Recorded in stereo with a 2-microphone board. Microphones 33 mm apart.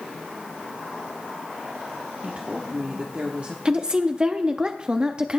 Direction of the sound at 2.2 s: 35° right (ahead or behind).